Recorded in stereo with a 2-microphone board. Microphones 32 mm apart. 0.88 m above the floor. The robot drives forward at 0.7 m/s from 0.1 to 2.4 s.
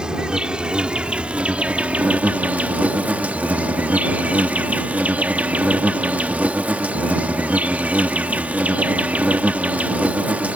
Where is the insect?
30° right (ahead or behind); by 10.6 s 55° right (ahead or behind).